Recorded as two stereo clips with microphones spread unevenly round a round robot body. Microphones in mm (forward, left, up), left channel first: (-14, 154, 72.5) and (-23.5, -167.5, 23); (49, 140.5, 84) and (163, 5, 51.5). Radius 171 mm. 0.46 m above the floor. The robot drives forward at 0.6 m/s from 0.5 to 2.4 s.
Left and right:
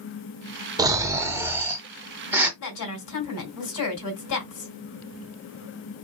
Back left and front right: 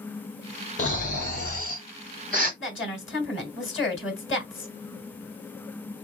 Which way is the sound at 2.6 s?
120° left.